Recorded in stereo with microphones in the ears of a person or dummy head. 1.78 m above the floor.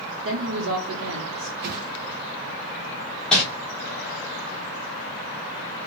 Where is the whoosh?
55° right (ahead or behind), 0.7 m.